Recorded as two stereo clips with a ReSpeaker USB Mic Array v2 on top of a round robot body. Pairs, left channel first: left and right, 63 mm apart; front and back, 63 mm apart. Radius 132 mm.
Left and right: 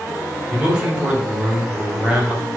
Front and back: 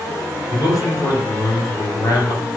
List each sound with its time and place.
0.5 s a man speaking: 15° right, 2.5 m